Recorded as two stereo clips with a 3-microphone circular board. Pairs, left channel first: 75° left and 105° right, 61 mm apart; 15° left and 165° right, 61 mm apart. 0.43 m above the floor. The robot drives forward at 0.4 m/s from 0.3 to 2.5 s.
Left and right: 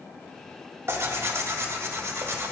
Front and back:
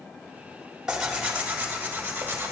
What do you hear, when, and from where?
0.9 s tearing paper: 90° right, 1.2 m; by 2.5 s 125° right, 1.4 m